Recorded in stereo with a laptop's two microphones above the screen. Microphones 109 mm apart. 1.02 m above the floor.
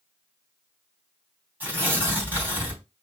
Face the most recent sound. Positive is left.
turn(degrees=-15)  # may be behind; listen again after turning